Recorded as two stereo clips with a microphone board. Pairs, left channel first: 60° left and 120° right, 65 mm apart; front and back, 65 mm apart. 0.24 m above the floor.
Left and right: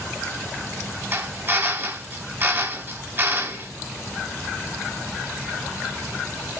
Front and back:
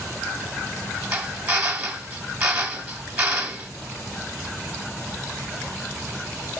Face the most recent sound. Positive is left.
turn(degrees=-125)